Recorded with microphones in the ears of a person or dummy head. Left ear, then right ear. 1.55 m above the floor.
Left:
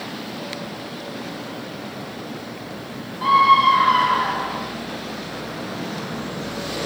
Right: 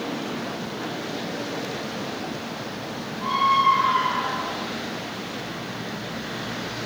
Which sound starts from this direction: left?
A scream, at 3.2 s.